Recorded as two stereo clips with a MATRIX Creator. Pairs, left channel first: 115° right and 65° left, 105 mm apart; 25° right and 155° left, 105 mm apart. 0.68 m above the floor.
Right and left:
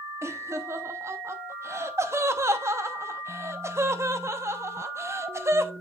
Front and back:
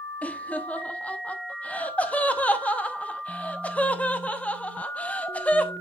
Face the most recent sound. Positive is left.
turn(degrees=40)